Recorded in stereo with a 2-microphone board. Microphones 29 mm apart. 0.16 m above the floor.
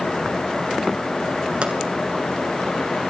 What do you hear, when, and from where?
1.6 s a pop: 45° right (ahead or behind), 2.5 m